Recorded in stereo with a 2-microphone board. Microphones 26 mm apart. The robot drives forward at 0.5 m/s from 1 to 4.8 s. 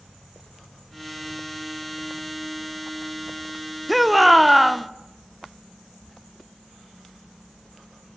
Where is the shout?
Centre (ahead or behind), 0.9 m.